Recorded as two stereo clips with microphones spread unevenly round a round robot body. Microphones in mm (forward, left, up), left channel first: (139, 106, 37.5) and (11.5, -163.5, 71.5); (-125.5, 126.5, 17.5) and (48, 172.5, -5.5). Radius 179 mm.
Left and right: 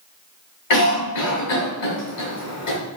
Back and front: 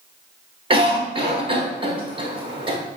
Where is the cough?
70° left, 2 m.